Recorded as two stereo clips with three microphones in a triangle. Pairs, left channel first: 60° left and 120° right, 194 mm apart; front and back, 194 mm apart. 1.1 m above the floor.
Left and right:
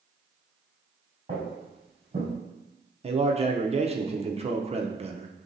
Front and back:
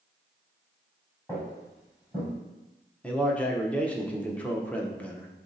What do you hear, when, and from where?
1.3 s footsteps: 75° right, 1.6 m; by 2.3 s 60° right, 2 m
3.0 s a man speaking: 80° right, 0.5 m